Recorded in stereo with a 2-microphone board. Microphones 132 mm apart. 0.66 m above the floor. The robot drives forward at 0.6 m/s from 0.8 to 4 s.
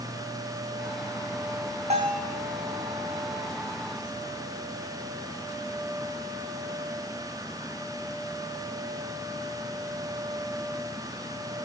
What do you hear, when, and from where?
1.9 s a bell: 55° right (ahead or behind), 3 m; by 2.3 s 60° right (ahead or behind), 2.5 m